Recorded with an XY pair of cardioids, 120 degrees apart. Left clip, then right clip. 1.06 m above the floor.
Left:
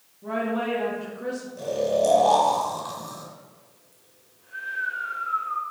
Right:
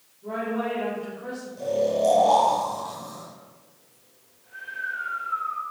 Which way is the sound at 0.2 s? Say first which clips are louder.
Left 1 dB; 60° left.